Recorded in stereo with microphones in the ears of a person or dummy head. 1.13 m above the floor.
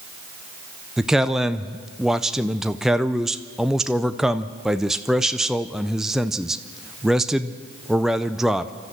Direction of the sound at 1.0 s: 5° right (ahead or behind).